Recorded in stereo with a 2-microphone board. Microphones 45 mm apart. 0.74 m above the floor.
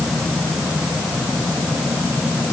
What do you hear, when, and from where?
Only background noise.